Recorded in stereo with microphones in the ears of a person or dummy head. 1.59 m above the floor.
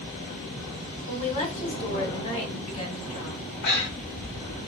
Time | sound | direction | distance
1.1 | a woman speaking | 40° left (ahead or behind) | 1.3 m
3.6 | breathing | 55° left (ahead or behind) | 0.9 m